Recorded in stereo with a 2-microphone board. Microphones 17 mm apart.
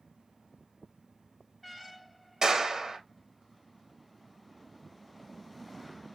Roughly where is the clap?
Right.